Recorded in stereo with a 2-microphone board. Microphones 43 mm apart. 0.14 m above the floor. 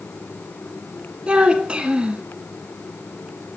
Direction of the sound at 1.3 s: 20° right (ahead or behind).